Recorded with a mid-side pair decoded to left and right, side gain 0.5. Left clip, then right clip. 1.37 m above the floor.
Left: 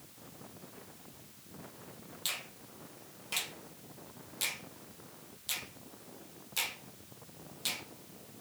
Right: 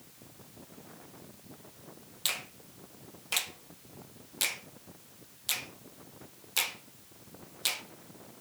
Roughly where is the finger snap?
Ahead right.